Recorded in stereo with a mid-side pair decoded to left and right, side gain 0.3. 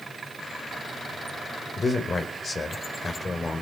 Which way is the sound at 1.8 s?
45° left.